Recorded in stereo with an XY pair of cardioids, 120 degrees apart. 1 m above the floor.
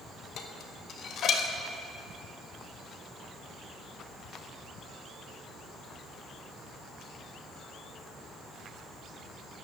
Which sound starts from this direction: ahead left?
Dishes clattering, at 0.4 s.